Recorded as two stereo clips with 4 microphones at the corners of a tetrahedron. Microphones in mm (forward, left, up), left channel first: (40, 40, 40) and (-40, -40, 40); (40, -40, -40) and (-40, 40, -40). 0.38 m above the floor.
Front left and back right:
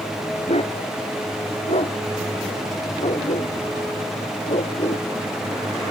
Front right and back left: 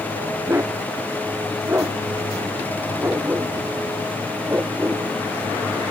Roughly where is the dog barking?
Left.